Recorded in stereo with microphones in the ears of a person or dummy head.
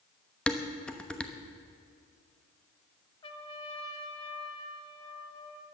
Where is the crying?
I don't hear crying.